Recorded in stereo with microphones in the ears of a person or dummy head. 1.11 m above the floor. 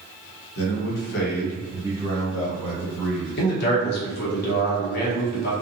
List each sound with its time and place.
0.6 s a man speaking: 70° left (ahead or behind), 0.9 m; by 3.4 s 5° left (ahead or behind), 1.6 m
3.4 s a man speaking: 50° left (ahead or behind), 0.7 m